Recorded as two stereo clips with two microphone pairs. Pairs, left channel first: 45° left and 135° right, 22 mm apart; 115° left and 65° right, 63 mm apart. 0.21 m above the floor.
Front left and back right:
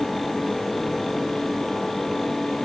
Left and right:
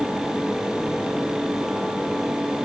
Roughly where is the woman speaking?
No woman speaking in this recording.